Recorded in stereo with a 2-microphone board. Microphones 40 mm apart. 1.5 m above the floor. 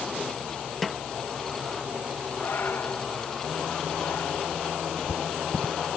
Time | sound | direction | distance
0.8 | a snare drum | 5° left (ahead or behind) | ?
2.4 | breathing | 65° left (ahead or behind) | ?